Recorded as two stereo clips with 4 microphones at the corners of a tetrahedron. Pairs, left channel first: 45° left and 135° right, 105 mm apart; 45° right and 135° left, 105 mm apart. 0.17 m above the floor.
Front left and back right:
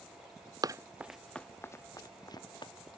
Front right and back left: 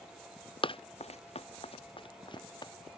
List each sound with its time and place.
0.6 s running footsteps: 80° right; by 2.7 s straight ahead